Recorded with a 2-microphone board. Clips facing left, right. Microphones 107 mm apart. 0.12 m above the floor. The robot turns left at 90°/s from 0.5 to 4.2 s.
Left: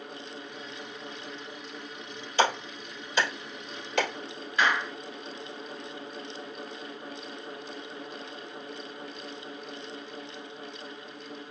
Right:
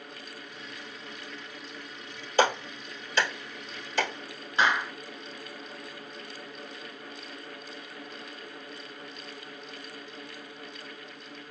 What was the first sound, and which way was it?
A clap, 50° right (ahead or behind).